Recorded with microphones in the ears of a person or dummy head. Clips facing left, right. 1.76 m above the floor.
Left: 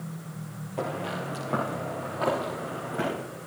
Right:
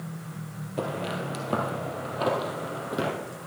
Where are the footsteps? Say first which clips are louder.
Right 1 dB; 20° right (ahead or behind), 2 m; by 3.1 s 50° right (ahead or behind), 3 m.